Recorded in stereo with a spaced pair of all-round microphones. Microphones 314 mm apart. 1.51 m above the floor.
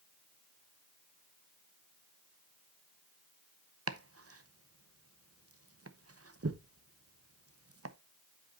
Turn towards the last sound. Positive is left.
turn(degrees=-50)  # may be behind; listen again after turning